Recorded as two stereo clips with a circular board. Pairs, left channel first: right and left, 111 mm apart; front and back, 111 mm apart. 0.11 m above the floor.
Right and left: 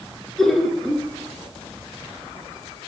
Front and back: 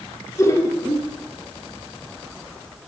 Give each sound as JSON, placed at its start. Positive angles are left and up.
{"t": 0.4, "sound": "laughter", "azimuth_deg": -5, "distance_m": 1.2}